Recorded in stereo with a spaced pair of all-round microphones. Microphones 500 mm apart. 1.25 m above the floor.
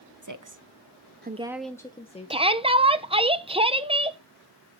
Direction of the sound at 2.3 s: 10° right (ahead or behind).